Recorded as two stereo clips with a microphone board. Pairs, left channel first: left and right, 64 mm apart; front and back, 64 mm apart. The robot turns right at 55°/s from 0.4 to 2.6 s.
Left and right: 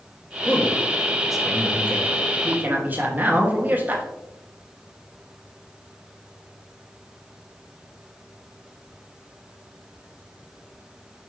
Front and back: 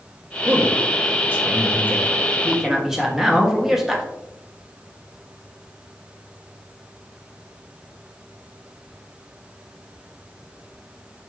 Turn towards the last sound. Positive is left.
turn(degrees=-105)